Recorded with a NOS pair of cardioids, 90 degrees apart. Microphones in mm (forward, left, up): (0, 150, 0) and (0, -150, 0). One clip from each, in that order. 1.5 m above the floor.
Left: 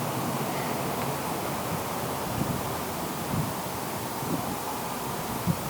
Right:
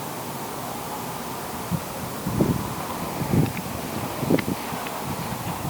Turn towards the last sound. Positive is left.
No sound to turn to.